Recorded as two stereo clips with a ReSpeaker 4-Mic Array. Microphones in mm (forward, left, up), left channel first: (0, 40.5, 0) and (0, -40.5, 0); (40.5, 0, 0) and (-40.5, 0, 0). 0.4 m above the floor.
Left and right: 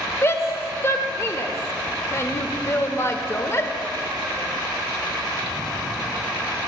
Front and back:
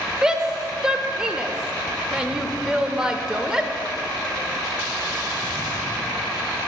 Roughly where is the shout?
Left.